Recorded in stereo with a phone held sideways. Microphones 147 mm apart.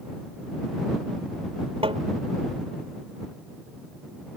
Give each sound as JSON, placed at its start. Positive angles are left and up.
{"t": 1.8, "sound": "tapping", "side_deg": -40}